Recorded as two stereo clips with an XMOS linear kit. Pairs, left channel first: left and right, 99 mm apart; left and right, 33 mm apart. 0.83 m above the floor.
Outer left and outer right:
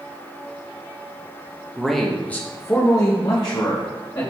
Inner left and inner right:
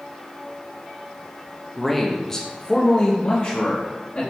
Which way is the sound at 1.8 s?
5° right (ahead or behind).